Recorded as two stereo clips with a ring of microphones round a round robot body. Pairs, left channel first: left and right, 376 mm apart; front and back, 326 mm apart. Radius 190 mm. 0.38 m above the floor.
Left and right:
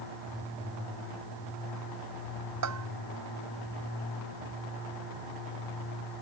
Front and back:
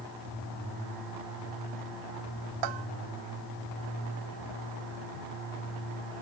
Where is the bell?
140° right.